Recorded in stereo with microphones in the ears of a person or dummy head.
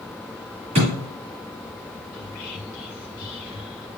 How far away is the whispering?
About 1.2 m.